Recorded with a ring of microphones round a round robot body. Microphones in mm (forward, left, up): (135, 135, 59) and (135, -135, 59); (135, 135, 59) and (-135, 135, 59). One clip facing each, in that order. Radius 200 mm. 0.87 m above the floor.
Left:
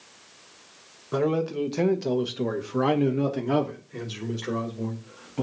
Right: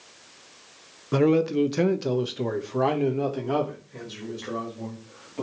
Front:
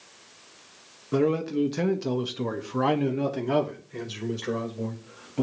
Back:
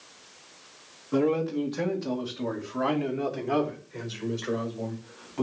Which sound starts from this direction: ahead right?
A man speaking, at 1.1 s.